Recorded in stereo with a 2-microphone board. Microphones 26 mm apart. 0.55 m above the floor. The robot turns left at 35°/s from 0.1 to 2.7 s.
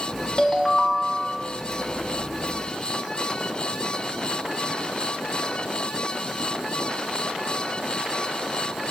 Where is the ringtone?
30° left, 1.2 m; by 1.5 s 10° right, 1.2 m.